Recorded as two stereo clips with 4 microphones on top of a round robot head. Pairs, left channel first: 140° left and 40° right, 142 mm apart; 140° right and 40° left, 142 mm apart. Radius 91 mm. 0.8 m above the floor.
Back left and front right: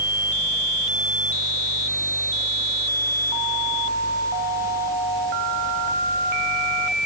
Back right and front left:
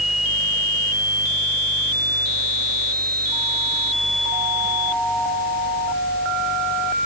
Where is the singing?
I don't hear singing.